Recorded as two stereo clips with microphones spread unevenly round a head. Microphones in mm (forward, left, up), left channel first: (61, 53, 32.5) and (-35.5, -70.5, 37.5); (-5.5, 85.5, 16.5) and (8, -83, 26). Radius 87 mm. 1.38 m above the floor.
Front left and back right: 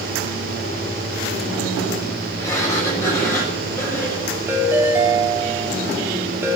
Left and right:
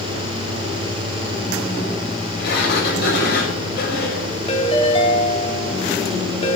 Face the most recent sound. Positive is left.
turn(degrees=155)